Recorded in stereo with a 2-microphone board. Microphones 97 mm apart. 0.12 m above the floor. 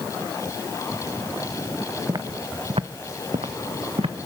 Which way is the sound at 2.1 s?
35° right (ahead or behind).